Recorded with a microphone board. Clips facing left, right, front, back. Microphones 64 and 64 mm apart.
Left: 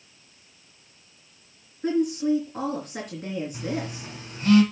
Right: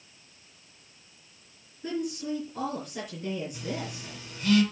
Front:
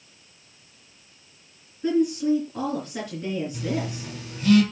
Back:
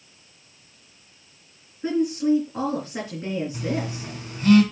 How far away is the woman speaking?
About 3.5 m.